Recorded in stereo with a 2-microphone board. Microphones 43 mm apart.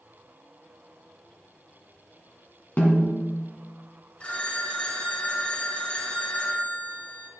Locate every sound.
2.8 s a snare drum: 40° left (ahead or behind), 1.8 m
4.2 s a phone ringing: 30° left (ahead or behind), 1.1 m